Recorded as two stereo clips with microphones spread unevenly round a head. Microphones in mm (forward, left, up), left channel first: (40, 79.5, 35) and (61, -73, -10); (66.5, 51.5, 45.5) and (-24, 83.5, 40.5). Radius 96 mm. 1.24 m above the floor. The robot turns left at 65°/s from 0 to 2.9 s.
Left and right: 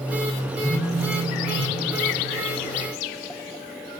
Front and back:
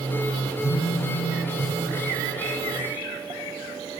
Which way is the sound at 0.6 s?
15° left.